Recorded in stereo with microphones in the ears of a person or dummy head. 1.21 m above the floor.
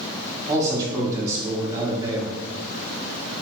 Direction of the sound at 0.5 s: 15° right (ahead or behind).